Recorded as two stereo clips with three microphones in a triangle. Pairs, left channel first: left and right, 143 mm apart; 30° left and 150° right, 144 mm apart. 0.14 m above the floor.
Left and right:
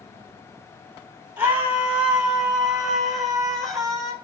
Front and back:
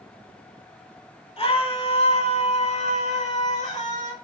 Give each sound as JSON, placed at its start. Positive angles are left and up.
{"t": 1.4, "sound": "a scream", "azimuth_deg": -15, "distance_m": 7.0}